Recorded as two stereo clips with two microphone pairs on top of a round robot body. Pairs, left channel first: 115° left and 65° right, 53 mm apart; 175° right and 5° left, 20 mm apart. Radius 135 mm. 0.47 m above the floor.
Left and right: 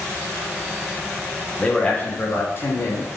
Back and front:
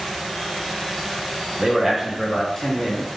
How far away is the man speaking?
About 1.4 m.